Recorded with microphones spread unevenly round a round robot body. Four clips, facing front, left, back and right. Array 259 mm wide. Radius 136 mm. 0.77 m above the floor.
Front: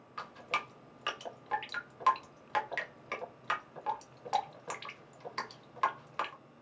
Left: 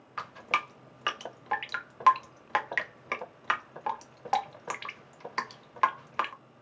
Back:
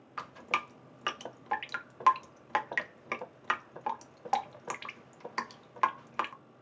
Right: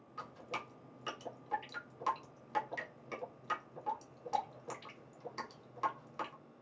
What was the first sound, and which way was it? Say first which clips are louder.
Dripping: left 12 dB, back 2 dB; 120° left.